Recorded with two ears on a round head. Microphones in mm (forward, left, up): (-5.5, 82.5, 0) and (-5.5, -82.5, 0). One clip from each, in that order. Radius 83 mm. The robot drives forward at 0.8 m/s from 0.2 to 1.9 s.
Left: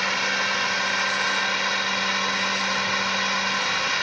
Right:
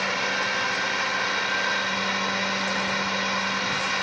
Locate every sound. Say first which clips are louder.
0.0 s a drone: left 2 dB; 30° left (ahead or behind)